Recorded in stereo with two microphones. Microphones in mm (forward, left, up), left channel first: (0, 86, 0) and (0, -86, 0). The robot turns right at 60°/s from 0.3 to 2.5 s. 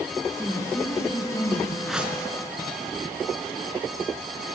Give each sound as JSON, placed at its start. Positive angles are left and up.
{"t": 0.4, "sound": "a woman speaking", "azimuth_deg": -10, "distance_m": 2.0}
{"t": 1.9, "sound": "a whoosh", "side_deg": 0, "distance_m": 3.5}